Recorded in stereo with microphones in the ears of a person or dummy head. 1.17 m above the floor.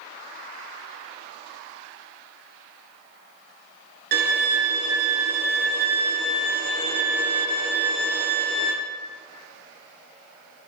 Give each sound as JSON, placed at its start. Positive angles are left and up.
{"t": 4.1, "sound": "a violin", "side_deg": -50, "distance_m": 0.5}